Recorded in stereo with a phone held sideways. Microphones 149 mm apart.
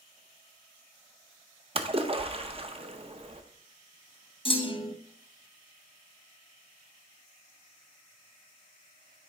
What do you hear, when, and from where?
1.8 s a splash: 40° right (ahead or behind), 0.6 m
4.5 s a clunk: 35° left (ahead or behind), 0.8 m